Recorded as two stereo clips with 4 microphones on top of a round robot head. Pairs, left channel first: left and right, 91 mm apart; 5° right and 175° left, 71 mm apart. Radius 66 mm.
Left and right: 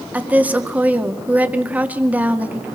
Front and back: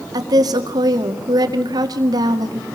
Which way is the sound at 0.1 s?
160° right.